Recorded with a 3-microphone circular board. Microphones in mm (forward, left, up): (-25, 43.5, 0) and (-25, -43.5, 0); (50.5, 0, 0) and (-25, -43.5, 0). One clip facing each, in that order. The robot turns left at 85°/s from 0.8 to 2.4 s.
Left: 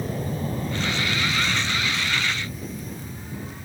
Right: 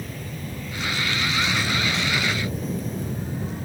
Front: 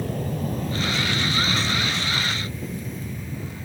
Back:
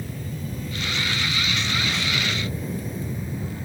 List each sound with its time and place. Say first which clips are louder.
0.0 s an aircraft: left 6 dB, front 6 dB; 40° left; by 3.6 s 85° right